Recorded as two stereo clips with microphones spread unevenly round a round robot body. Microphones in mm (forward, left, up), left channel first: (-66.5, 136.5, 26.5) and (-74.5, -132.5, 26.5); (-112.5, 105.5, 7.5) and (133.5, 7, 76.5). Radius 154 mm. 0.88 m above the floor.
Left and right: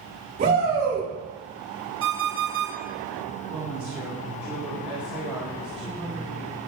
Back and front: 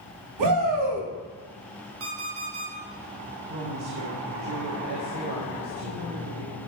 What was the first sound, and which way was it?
A shout, 30° right.